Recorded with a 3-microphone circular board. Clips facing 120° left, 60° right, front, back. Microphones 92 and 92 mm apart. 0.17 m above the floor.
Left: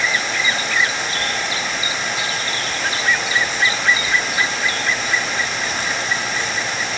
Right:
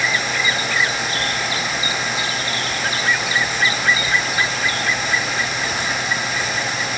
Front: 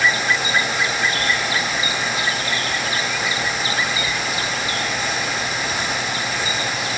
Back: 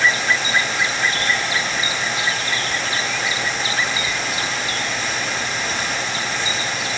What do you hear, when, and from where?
Only background noise.